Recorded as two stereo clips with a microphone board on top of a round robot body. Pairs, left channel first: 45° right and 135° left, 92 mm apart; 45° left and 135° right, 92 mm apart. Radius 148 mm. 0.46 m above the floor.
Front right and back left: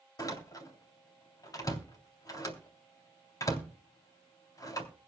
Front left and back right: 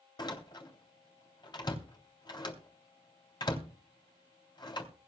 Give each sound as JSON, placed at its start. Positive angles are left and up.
{"t": 0.2, "sound": "a door slam", "azimuth_deg": 5, "distance_m": 3.5}